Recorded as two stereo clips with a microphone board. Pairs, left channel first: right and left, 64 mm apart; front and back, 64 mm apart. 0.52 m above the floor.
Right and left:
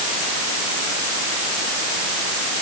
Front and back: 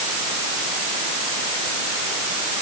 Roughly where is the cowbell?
I don't hear a cowbell.